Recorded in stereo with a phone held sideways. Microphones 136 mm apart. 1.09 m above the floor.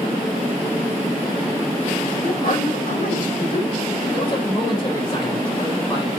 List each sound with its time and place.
2.2 s a man speaking: 80° left, 3 m
4.1 s a man speaking: 40° left (ahead or behind), 4 m